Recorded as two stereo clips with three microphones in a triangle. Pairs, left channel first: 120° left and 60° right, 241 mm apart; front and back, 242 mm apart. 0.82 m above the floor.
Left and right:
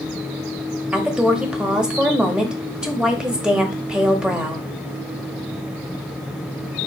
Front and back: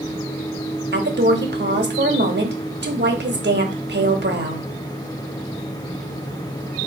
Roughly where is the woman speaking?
Behind right.